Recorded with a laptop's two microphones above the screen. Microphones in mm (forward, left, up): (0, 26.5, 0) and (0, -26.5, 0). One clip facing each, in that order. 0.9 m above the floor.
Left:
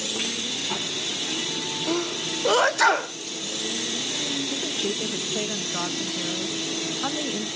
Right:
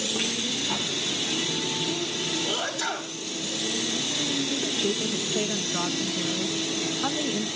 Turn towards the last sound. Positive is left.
turn(degrees=10)  # may be behind; listen again after turning